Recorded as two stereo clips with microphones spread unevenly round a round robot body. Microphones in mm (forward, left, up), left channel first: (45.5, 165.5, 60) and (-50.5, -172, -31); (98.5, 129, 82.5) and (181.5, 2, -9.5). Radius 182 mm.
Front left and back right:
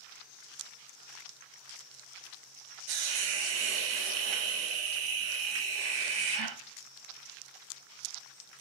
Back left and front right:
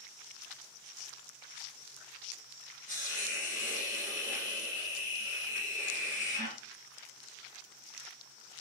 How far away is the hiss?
About 0.6 m.